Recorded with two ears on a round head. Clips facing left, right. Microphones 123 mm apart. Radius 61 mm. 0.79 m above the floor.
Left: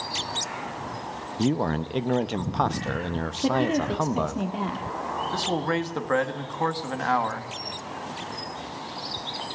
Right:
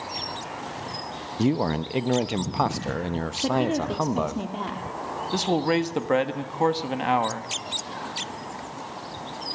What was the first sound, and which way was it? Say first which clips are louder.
A man speaking: right 1 dB; 5° right (ahead or behind).